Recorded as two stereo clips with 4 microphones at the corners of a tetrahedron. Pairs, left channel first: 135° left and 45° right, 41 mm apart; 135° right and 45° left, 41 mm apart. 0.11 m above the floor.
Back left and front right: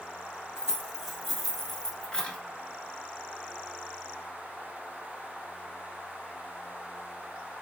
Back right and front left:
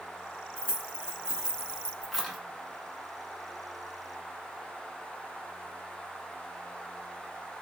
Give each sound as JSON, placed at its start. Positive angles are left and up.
{"t": 0.6, "sound": "keys jangling", "azimuth_deg": 20, "distance_m": 1.1}